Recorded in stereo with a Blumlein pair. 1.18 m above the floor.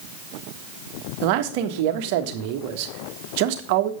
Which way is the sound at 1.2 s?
45° right.